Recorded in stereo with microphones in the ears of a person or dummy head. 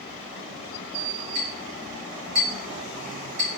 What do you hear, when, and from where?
1.4 s a clink: 45° right (ahead or behind), 2.0 m